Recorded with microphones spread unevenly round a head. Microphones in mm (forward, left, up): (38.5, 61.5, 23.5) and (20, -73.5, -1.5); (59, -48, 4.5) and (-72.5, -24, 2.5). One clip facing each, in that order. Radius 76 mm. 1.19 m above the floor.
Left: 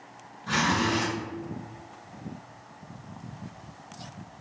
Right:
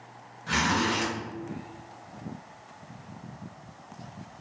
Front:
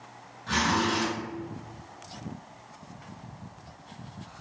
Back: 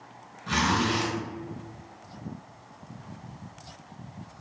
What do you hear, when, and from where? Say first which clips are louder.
0.5 s a zipper: left 1 dB, back 1 dB; 175° left, 1.5 m